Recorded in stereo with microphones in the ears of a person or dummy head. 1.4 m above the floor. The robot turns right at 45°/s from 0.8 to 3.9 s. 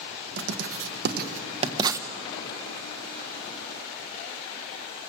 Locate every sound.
0.4 s writing: 75° right (ahead or behind), 1.3 m; by 2.1 s 20° right (ahead or behind), 1.3 m